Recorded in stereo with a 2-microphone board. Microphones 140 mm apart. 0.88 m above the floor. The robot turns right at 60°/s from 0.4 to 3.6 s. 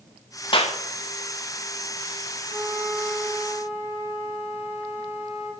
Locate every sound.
0.5 s a clap: 40° left (ahead or behind), 0.9 m; by 0.8 s 45° left (ahead or behind), 0.9 m
2.5 s a flute: 20° right, 4 m; by 5.5 s 50° left, 4 m